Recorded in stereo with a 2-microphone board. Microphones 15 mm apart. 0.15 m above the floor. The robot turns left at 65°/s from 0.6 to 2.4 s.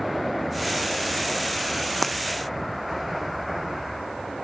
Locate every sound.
2.0 s breaking glass: 10° left (ahead or behind); by 2.2 s centre (ahead or behind)